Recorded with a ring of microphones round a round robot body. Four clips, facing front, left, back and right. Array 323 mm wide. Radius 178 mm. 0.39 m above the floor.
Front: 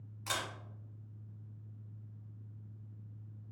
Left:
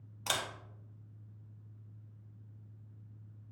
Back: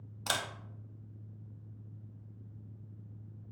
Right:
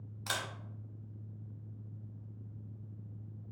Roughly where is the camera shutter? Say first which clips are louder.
Left 2 dB, back 3 dB; behind left.